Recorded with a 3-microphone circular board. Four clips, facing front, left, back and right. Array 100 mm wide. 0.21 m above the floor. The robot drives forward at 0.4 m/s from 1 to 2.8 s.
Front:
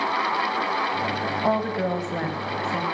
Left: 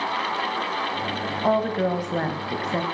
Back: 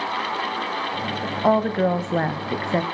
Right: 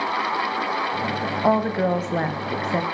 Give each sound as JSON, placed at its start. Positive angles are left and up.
{"t": 1.4, "sound": "a woman speaking", "azimuth_deg": -135, "distance_m": 1.0}